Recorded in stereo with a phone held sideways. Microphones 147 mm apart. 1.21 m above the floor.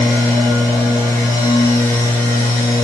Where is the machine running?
25° left (ahead or behind), 3 m.